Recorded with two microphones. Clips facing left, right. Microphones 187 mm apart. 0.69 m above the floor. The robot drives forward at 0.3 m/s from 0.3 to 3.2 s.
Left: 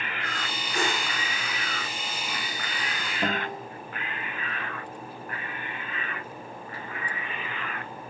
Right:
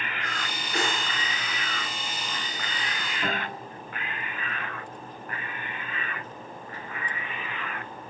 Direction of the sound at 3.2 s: 60° left (ahead or behind).